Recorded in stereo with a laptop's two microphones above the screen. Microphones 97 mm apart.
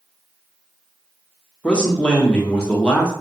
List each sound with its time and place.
1.6 s a man speaking: 10° left (ahead or behind), 0.7 m